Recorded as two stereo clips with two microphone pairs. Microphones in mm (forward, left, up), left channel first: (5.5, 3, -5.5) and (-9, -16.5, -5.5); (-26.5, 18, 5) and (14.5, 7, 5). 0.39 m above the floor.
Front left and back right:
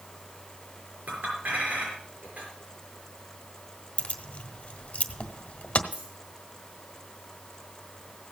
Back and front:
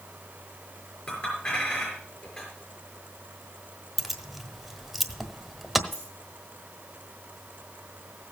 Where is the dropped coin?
115° right, 7 m.